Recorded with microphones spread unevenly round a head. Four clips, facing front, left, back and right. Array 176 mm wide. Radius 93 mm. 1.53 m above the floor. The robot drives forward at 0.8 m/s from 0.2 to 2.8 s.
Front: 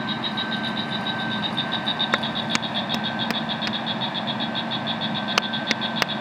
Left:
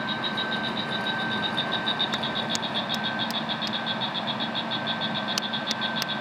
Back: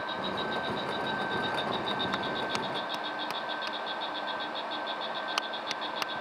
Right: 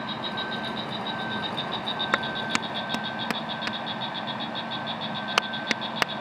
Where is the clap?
20° right.